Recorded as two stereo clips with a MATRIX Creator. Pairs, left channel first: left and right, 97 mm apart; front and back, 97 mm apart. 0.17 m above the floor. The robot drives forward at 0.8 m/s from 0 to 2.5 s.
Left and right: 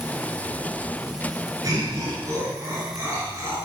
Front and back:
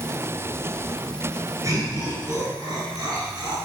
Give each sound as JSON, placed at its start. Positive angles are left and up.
{"t": 1.6, "sound": "laughter", "azimuth_deg": -135, "distance_m": 2.5}